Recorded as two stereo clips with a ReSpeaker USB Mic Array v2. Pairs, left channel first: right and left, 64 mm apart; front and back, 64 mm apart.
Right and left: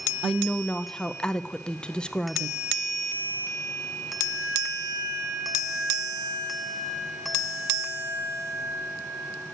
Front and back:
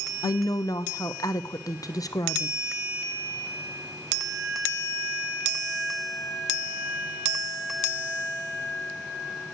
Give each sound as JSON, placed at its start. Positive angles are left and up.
{"t": 0.2, "sound": "a woman speaking", "azimuth_deg": -15, "distance_m": 0.7}